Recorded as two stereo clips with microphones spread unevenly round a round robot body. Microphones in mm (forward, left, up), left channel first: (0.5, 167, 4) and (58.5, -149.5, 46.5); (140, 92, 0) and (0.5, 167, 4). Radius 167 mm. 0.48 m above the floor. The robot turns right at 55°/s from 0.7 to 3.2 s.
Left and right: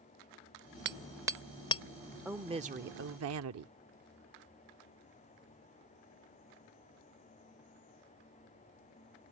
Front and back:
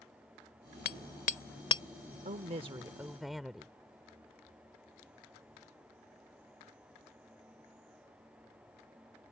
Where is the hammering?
20° right; by 1.8 s 35° left.